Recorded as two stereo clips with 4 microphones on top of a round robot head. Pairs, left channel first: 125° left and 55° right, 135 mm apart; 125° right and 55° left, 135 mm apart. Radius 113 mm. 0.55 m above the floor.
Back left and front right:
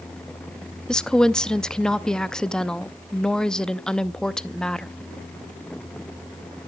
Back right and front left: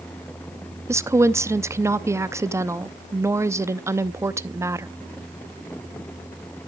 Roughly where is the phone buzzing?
I don't hear a phone buzzing.